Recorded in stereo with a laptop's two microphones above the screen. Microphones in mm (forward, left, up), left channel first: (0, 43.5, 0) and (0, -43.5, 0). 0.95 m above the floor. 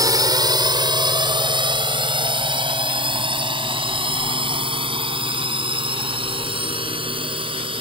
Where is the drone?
45° right (ahead or behind); by 7.8 s 85° right.